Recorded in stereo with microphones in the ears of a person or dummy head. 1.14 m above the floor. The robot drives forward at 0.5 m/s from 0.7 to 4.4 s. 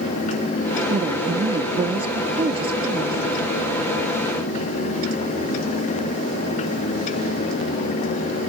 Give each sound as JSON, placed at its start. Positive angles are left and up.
{"t": 0.9, "sound": "a woman speaking", "side_deg": -30}